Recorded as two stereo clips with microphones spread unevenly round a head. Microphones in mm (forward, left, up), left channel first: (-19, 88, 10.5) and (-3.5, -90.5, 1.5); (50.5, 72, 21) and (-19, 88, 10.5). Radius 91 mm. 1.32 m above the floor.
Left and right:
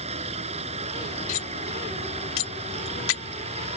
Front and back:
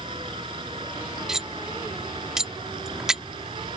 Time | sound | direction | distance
0.0 | a machine running | 140° right | ?
1.3 | cutlery clinking | 85° left | ?